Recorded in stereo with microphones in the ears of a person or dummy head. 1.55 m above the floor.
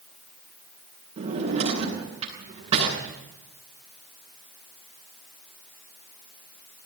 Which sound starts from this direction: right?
A drawer, at 1.2 s.